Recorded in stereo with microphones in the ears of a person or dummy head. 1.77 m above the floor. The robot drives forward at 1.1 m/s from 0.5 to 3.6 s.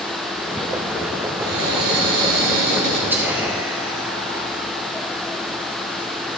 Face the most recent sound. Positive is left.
turn(degrees=-10)  # may be behind; listen again after turning